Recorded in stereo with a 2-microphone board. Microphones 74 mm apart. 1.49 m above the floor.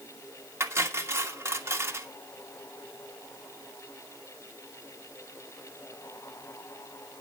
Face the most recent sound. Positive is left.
turn(degrees=-35)  # may be behind; listen again after turning